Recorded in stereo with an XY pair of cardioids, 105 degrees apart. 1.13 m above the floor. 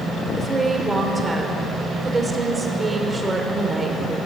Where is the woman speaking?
20° right, 4.5 m.